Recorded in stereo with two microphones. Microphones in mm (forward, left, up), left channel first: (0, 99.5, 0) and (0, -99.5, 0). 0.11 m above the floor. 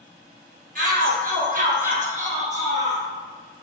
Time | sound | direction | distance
0.8 | a shout | 45° right (ahead or behind) | 2.5 m